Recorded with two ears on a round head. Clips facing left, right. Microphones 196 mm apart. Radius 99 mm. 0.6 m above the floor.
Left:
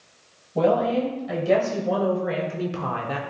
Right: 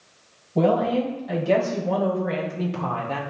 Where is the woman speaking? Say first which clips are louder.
Even; centre (ahead or behind), 3.5 m; by 3.2 s 15° left (ahead or behind), 1.4 m.